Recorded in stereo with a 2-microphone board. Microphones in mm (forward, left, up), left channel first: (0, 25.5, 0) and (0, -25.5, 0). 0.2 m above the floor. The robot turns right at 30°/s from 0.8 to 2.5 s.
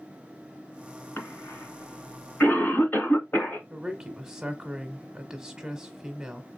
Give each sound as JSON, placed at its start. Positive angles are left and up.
{"t": 1.2, "sound": "a cough", "side_deg": 45, "distance_m": 1.8}
{"t": 3.7, "sound": "a woman speaking", "side_deg": -15, "distance_m": 1.0}